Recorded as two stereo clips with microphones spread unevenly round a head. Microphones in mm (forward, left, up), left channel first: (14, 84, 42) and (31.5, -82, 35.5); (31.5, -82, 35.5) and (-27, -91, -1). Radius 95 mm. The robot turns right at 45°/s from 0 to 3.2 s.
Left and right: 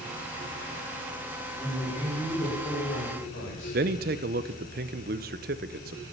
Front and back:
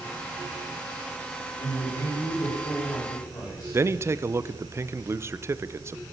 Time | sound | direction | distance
1.6 | a man speaking | 10° left | 9 m
3.7 | a man speaking | 100° right | 0.8 m